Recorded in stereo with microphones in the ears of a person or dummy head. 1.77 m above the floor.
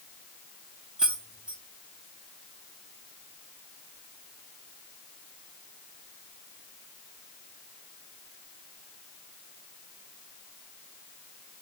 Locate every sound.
1.0 s keys jangling: 5° right (ahead or behind), 0.8 m